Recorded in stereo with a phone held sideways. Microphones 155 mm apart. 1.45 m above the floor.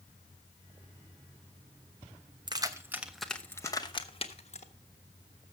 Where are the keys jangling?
30° right (ahead or behind), 0.9 m; by 4.7 s 50° left (ahead or behind), 1.2 m.